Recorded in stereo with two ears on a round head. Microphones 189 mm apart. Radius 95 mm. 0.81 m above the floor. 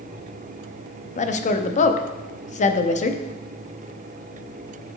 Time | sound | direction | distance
1.2 | a woman speaking | 35° left (ahead or behind) | 0.8 m